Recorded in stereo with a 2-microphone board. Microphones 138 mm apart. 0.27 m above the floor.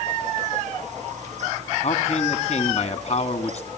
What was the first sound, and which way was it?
A man speaking, 50° left (ahead or behind).